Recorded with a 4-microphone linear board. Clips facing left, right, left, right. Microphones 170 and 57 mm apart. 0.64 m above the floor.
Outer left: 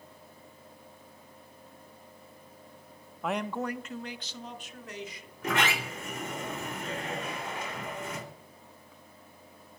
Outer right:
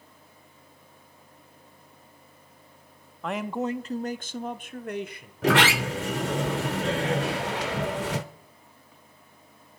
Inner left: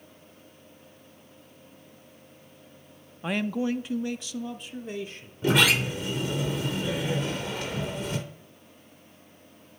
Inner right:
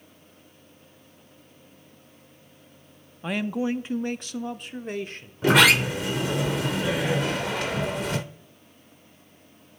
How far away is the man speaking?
About 0.6 m.